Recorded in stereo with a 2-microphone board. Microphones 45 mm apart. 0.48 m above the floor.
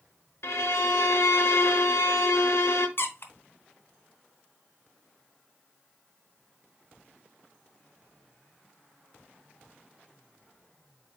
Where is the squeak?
55° left (ahead or behind), 0.8 m.